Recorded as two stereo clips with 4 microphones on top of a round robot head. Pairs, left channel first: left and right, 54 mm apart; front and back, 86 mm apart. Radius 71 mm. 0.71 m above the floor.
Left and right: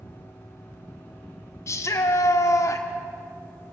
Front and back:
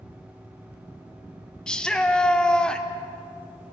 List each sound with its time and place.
1.7 s a shout: 80° left, 1.9 m